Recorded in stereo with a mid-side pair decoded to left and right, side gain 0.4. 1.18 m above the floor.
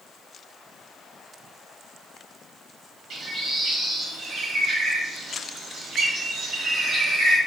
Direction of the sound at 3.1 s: 70° right.